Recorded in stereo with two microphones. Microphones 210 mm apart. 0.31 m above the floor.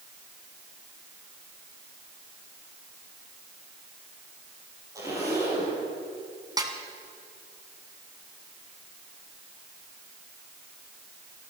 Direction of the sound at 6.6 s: 20° right (ahead or behind).